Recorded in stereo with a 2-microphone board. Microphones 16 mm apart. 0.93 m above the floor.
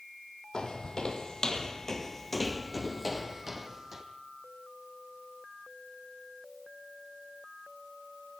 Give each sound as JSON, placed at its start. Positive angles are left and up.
{"t": 0.5, "sound": "footsteps", "side_deg": 50, "distance_m": 1.7}